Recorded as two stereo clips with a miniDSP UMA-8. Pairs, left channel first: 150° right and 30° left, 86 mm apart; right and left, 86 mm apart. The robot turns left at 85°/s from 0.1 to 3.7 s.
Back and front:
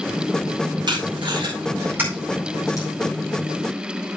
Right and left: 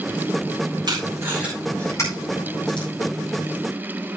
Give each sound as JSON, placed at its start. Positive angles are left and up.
{"t": 0.9, "sound": "tape being pulled", "azimuth_deg": 60, "distance_m": 9.0}